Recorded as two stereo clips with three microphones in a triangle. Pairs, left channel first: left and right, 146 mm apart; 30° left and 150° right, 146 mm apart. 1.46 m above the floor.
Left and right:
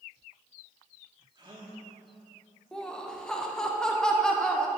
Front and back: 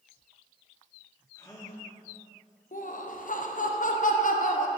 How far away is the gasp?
About 1.8 m.